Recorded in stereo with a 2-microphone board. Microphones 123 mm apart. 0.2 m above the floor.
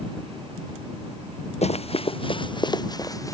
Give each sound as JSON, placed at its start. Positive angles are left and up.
{"t": 1.6, "sound": "running footsteps", "side_deg": 55}